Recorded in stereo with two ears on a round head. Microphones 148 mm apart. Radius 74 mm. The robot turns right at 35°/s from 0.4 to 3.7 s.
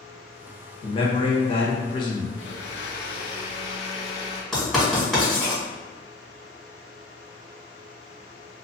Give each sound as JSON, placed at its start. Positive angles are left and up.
{"t": 0.8, "sound": "a man speaking", "azimuth_deg": 75, "distance_m": 0.9}
{"t": 2.4, "sound": "a blender", "azimuth_deg": 95, "distance_m": 0.8}
{"t": 4.5, "sound": "writing", "side_deg": 0, "distance_m": 1.8}